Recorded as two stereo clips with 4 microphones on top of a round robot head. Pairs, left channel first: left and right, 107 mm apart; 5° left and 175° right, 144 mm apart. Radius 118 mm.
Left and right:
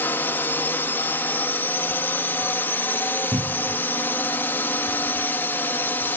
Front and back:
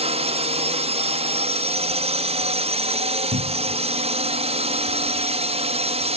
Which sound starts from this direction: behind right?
A cupboard door, at 3.3 s.